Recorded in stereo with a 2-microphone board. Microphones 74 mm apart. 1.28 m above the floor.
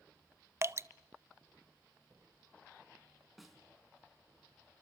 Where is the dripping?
35° right (ahead or behind), 0.6 m.